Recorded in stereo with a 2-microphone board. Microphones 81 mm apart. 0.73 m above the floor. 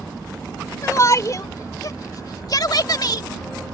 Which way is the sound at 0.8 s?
40° left (ahead or behind).